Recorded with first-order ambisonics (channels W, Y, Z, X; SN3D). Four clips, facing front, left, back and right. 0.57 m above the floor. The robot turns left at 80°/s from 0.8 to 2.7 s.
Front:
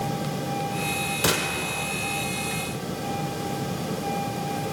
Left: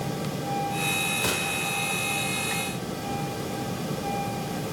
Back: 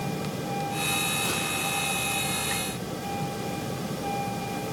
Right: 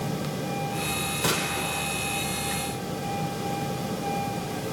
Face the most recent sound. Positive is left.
turn(degrees=-120)